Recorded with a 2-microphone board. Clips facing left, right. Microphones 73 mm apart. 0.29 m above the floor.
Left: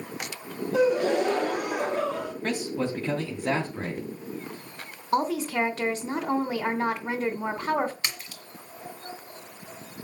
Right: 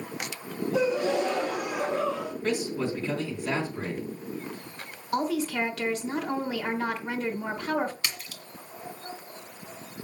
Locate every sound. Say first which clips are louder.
0.7 s a gasp: left 3 dB; 55° left (ahead or behind), 1.8 m
2.4 s a man speaking: right 1 dB; 45° left (ahead or behind), 2.5 m
5.1 s a woman speaking: left 2 dB; 35° left (ahead or behind), 2.5 m
8.0 s a splash: left 1 dB; 30° left (ahead or behind), 2.0 m